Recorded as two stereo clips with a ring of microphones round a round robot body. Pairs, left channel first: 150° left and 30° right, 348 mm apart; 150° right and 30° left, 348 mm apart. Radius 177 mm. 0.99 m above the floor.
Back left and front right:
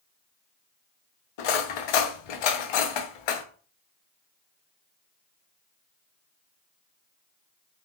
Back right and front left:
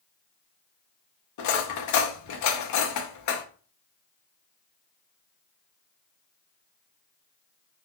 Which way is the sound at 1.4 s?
165° left.